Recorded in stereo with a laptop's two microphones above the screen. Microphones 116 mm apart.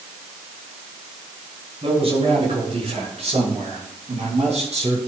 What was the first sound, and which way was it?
A man speaking, 55° right (ahead or behind).